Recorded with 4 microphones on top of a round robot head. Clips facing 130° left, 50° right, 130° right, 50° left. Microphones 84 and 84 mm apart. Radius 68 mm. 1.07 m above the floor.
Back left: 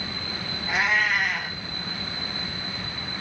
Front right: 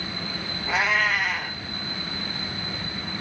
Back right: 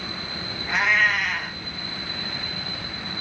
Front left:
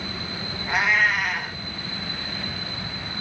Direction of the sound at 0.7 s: 35° right.